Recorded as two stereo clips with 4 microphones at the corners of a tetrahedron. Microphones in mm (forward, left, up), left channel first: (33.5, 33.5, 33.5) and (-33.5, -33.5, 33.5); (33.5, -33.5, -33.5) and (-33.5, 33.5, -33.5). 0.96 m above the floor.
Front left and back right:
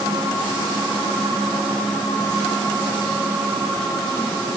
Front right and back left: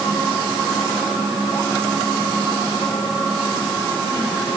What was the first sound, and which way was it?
Only background noise.